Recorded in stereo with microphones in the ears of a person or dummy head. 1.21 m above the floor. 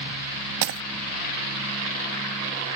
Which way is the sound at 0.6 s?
65° right (ahead or behind).